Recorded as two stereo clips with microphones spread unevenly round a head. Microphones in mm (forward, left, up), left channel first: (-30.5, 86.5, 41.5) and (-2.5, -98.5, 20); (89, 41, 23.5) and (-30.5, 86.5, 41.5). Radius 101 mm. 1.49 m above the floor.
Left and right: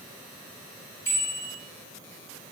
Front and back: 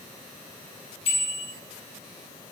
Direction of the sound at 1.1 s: 20° left.